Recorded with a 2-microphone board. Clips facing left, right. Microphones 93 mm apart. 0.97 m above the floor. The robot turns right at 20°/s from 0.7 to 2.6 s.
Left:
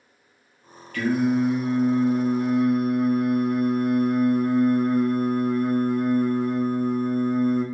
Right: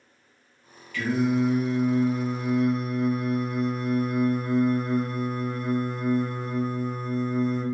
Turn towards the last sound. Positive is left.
turn(degrees=110)